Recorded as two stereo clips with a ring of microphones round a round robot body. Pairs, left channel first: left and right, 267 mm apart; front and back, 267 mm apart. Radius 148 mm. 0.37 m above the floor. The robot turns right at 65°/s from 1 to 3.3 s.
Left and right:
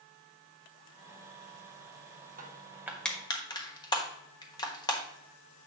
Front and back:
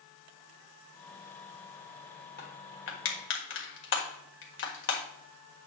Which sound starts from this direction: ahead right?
Crushing, at 2.4 s.